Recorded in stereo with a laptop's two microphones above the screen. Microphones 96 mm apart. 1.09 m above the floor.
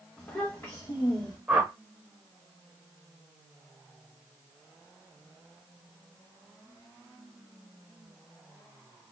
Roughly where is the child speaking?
Centre.